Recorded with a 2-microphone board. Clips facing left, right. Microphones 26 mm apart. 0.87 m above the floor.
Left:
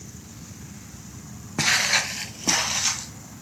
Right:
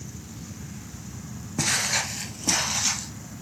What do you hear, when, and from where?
1.6 s footsteps: 30° left (ahead or behind), 0.9 m; by 3.1 s 10° left (ahead or behind), 1.6 m